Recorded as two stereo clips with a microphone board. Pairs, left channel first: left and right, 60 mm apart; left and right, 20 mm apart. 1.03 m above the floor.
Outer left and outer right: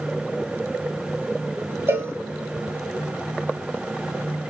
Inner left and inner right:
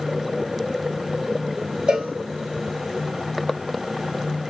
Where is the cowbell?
40° right (ahead or behind), 1.2 m.